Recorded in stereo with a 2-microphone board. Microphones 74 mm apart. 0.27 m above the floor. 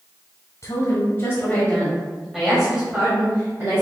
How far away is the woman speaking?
About 1.7 m.